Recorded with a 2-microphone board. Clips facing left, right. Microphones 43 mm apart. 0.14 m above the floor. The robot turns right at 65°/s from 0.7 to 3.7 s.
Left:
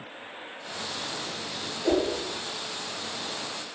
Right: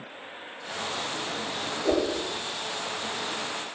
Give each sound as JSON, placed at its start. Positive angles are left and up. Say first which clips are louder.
{"t": 1.8, "sound": "a whoosh", "louder": "left 1 dB", "side_deg": 35, "distance_m": 2.0}